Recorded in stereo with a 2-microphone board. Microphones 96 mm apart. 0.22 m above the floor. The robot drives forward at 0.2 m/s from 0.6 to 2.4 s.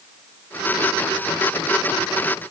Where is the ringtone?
No ringtone in this recording.